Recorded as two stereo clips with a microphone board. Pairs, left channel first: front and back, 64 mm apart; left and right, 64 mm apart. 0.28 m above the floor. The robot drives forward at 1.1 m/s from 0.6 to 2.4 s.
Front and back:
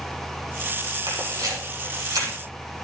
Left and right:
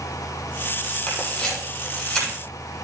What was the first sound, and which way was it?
A camera shutter, 165° left.